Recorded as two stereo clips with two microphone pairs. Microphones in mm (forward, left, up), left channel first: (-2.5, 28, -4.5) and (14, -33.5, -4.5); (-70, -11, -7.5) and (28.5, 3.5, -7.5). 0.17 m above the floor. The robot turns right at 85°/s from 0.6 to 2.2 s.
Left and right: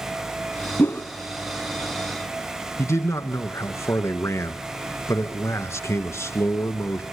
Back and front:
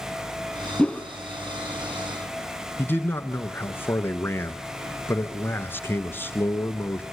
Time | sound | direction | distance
0.8 | a whoosh | 115° left | 1.0 m
2.8 | a man speaking | 125° left | 1.8 m